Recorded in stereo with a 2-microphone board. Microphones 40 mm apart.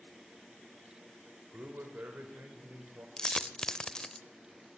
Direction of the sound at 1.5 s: 55° right (ahead or behind).